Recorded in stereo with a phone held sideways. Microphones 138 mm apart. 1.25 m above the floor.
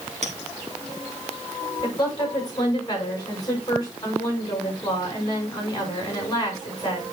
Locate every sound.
0.2 s a clink: 65° right (ahead or behind), 1.7 m
1.8 s a woman speaking: 30° left (ahead or behind), 6 m